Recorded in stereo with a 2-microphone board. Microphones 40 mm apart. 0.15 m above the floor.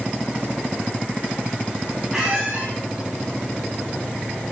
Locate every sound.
2.1 s a squeak: 10° right (ahead or behind), 5.5 m